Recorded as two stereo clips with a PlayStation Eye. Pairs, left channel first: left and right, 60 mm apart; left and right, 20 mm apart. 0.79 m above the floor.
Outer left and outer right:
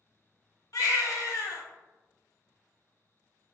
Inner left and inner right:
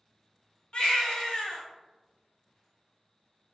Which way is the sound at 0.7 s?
60° left (ahead or behind).